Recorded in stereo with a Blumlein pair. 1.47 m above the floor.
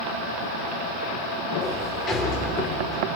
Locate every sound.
1.6 s a sliding door: 20° left, 3 m